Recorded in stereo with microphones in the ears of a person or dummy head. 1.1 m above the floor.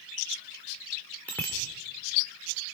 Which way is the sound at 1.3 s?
15° left (ahead or behind).